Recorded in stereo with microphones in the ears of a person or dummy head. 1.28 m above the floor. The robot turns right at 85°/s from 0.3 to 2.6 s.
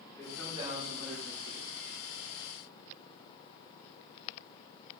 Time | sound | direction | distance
0.2 | a man speaking | 175° left | 4.5 m